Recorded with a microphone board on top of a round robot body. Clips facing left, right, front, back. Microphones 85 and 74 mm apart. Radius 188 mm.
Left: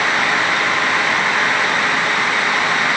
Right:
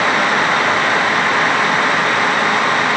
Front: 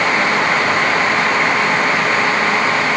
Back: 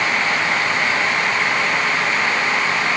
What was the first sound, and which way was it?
Only background noise.